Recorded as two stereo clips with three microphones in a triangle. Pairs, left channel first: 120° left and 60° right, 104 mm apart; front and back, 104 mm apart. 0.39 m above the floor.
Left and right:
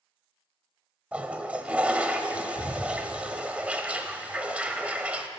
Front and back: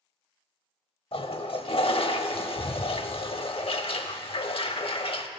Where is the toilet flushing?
15° left, 0.6 m.